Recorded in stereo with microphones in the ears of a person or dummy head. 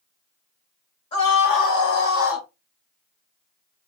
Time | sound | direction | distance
1.1 | a scream | 30° left (ahead or behind) | 2.5 m